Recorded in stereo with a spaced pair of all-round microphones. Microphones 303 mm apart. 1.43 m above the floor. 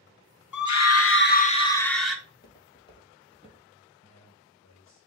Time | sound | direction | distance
0.5 | a scream | 75° left (ahead or behind) | 0.6 m
2.2 | footsteps | 10° left (ahead or behind) | 2.5 m
4.0 | a man speaking | 55° left (ahead or behind) | 1.1 m